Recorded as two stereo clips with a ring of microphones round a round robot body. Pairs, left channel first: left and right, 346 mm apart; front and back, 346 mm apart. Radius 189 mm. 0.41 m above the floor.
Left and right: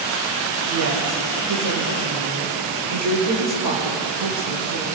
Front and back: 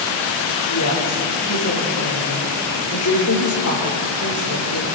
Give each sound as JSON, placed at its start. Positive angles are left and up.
{"t": 0.7, "sound": "a woman speaking", "azimuth_deg": -50, "distance_m": 9.0}